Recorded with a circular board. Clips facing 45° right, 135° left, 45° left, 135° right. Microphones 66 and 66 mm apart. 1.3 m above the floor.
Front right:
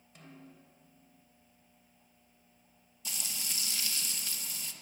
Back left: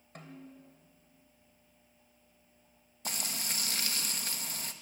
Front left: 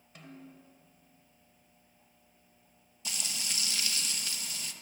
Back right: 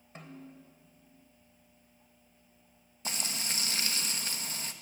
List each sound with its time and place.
0.1 s a snare drum: 170° left, 2.5 m
3.0 s frying: 175° left, 1.1 m